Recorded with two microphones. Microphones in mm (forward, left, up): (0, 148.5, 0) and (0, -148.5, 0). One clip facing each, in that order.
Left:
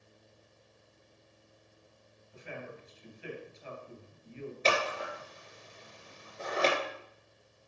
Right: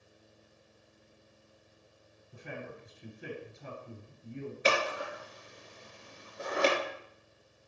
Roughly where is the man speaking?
Right.